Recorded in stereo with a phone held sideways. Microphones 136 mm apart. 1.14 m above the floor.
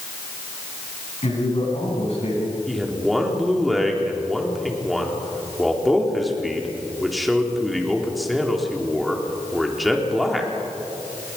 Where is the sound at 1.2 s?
50° left (ahead or behind), 8.5 m.